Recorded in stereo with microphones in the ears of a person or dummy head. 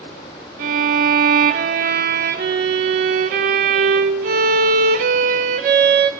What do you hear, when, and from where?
0.6 s a violin: 40° right (ahead or behind), 0.7 m